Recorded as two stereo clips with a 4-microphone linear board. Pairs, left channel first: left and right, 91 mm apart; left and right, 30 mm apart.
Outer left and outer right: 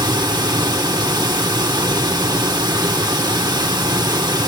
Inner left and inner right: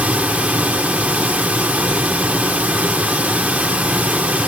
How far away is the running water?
About 1.2 m.